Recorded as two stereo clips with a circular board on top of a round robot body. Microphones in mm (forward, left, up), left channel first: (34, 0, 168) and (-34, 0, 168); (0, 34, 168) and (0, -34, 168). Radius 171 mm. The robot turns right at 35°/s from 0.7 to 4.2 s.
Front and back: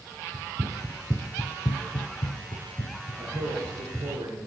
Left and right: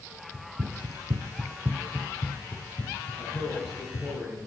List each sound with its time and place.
0.3 s running footsteps: 155° right, 1.4 m; by 4.1 s 100° left, 4.5 m
3.2 s a man speaking: 140° left, 9 m; by 4.5 s 175° left, 9 m